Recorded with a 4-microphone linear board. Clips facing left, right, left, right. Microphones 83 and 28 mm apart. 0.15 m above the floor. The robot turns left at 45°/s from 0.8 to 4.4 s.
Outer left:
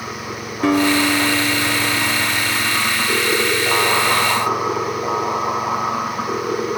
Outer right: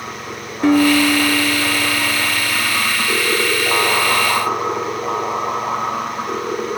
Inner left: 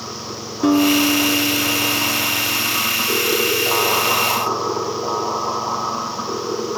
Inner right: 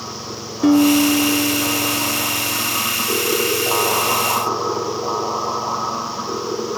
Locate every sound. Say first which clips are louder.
0.6 s a guitar: outer right 3 dB, inner right 2 dB; straight behind, 2.5 m; by 2.8 s 90° left, 2.5 m